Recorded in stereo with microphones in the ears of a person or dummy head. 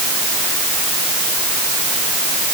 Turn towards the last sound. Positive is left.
No sound to turn to.